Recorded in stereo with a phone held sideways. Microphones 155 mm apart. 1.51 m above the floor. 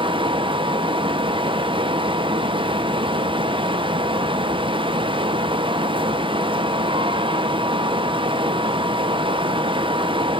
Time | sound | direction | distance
0.0 | a fan | 35° right (ahead or behind) | 0.7 m